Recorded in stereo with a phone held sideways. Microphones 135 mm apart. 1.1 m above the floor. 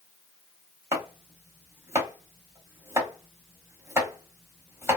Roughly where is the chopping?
Centre.